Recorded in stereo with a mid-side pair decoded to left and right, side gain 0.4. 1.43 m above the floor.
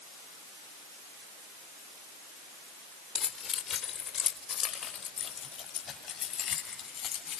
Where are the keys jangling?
60° left, 4 m; by 7.4 s 70° left, 7 m.